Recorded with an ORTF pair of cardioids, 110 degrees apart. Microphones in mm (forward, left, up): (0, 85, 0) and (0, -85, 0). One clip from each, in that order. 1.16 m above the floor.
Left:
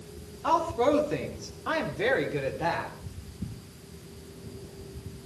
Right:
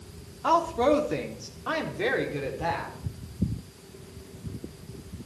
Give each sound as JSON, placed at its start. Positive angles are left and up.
{"t": 0.4, "sound": "a woman speaking", "azimuth_deg": -20, "distance_m": 3.0}